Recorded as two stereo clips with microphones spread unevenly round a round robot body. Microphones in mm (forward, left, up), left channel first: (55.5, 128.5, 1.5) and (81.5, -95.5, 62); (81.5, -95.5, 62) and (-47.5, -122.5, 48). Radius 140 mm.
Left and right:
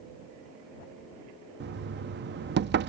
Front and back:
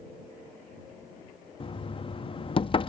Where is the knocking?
40° right.